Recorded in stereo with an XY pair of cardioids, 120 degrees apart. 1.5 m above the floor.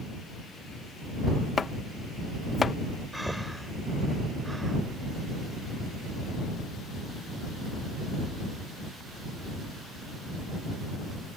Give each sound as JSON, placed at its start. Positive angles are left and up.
{"t": 1.6, "sound": "chopping", "azimuth_deg": 30}
{"t": 3.1, "sound": "breathing", "azimuth_deg": -5}